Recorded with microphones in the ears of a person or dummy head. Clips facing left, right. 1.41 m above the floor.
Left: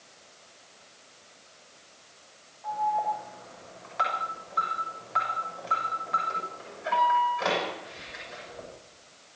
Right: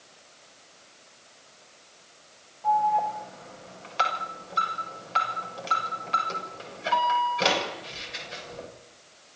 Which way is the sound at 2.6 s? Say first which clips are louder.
Right 5 dB; 40° right (ahead or behind).